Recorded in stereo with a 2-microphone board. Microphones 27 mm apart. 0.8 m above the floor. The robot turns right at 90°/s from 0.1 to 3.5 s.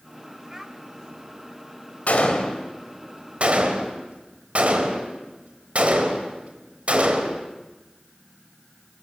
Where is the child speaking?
25° right (ahead or behind), 2 m; by 0.8 s 5° right (ahead or behind), 2 m.